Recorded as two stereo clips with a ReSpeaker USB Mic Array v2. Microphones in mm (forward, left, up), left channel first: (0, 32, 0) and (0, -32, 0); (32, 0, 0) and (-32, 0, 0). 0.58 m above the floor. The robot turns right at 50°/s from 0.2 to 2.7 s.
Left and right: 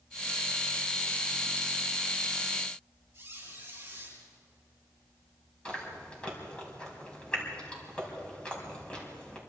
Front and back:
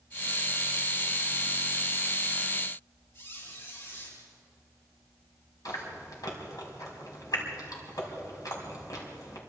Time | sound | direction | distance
3.1 | a squeak | 35° right | 9.5 m
5.7 | chewing | 15° left | 5 m